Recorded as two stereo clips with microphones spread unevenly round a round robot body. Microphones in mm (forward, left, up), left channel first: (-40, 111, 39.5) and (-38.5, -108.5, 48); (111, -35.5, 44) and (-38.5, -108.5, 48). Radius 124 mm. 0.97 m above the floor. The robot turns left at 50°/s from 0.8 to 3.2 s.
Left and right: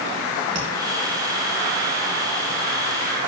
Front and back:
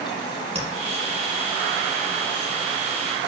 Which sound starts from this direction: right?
Tapping, at 0.6 s.